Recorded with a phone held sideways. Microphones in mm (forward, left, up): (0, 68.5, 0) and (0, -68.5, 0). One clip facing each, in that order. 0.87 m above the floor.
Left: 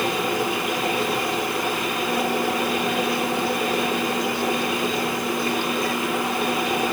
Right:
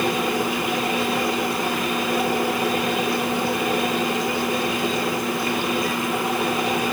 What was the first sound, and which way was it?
Only background noise.